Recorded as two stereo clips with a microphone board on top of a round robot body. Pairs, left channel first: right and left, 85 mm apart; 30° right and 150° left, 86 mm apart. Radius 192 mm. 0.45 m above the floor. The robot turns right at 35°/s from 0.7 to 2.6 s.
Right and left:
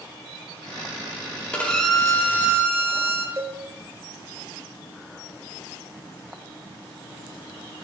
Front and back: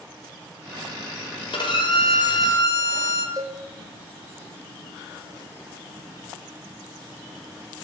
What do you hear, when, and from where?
1.5 s a violin: 15° right, 1.7 m; by 3.3 s 20° left, 1.7 m
3.4 s a cowbell: 130° left, 1.3 m